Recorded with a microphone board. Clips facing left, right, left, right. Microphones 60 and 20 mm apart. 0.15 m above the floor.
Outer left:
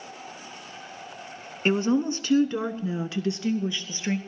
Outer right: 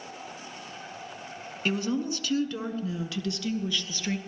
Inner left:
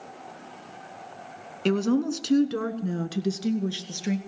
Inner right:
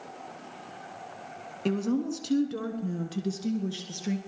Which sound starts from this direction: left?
A woman speaking, at 1.6 s.